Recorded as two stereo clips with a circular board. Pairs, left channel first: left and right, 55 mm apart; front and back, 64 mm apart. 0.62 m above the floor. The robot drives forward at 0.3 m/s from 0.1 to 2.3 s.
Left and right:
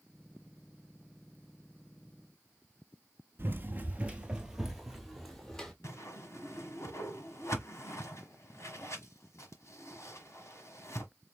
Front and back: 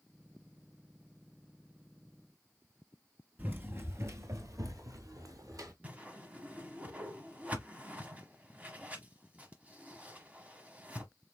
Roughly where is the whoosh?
Behind left.